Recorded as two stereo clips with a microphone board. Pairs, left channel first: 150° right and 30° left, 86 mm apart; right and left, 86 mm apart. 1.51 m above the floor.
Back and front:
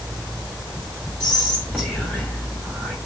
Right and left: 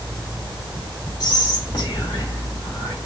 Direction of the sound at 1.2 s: 55° right.